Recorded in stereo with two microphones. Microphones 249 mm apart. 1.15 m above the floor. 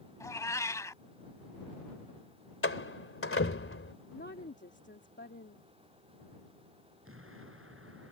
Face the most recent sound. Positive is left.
turn(degrees=-60)  # may be behind; listen again after turning